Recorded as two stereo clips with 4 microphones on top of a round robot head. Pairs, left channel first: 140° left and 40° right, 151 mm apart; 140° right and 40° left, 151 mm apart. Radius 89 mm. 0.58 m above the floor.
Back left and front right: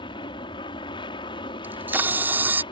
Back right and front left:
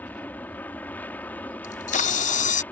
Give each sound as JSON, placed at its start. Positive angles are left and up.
{"t": 0.0, "sound": "an aircraft", "azimuth_deg": 150}
{"t": 1.6, "sound": "a camera shutter", "azimuth_deg": -115}